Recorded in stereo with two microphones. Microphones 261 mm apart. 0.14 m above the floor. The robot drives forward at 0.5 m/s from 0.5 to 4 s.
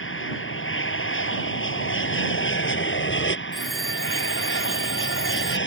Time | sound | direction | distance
0.0 | an aircraft | 50° left (ahead or behind) | ?
3.5 | a phone ringing | centre (ahead or behind) | ?